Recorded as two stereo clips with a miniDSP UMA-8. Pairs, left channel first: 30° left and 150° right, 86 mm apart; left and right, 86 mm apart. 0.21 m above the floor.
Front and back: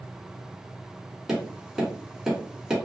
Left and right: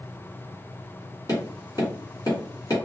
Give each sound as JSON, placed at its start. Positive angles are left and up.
{"t": 1.3, "sound": "tapping", "azimuth_deg": 125, "distance_m": 1.5}